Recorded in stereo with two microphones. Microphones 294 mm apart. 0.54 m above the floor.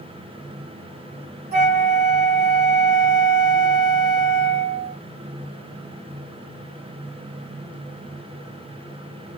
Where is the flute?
50° left (ahead or behind), 3 m.